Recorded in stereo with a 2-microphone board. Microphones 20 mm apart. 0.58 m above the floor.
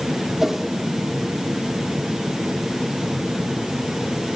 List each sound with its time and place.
0.4 s a whoosh: 20° right (ahead or behind), 1.7 m